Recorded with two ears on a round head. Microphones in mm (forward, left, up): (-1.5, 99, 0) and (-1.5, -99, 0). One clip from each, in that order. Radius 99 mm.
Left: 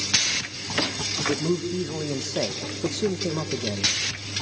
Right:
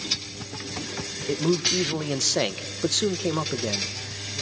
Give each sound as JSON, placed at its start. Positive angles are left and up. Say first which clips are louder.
{"t": 1.3, "sound": "a man speaking", "louder": "right 3 dB", "side_deg": -70, "distance_m": 1.6}